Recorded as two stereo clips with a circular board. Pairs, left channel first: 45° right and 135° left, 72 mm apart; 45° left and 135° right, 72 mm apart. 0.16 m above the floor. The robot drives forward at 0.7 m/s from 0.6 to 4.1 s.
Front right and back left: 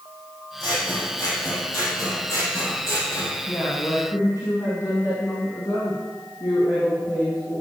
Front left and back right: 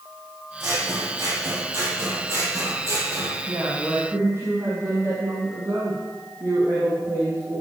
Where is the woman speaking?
80° right, 6 m; by 7.6 s 85° right, 5.5 m.